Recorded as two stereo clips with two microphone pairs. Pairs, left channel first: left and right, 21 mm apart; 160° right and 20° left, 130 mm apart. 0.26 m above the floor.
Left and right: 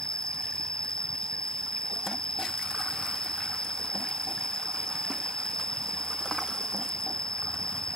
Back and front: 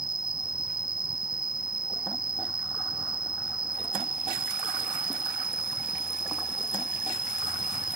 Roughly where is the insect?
Ahead left.